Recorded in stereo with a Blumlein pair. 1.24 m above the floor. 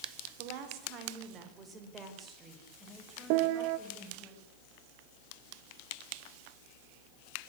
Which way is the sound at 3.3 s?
45° right.